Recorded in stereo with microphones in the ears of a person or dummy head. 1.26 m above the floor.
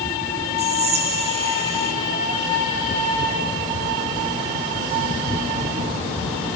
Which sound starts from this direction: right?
Whispering, at 0.6 s.